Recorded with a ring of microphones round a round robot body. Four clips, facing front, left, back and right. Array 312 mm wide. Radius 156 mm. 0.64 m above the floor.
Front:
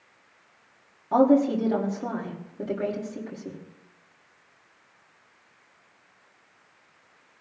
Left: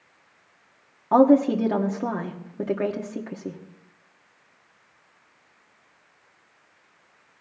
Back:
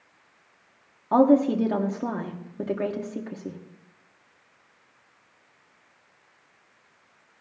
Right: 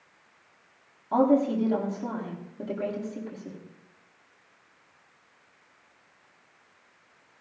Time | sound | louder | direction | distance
1.1 | a woman speaking | left 6 dB, back 1 dB | 115° left | 1.6 m